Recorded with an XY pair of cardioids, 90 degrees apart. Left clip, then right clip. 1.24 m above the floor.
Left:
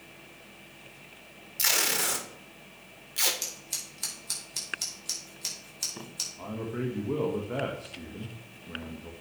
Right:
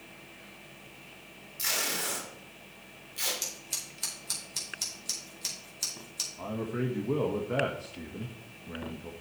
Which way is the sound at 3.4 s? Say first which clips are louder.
Even; 5° left.